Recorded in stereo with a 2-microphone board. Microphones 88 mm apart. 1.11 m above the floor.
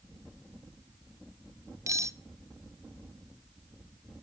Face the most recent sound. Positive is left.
turn(degrees=-35)  # may be behind; listen again after turning